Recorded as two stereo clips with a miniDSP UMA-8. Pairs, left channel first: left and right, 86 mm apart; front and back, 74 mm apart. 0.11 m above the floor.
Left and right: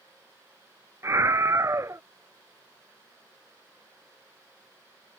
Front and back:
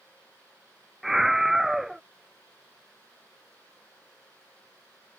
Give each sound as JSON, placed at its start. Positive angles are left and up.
{"t": 1.0, "sound": "a scream", "azimuth_deg": -95}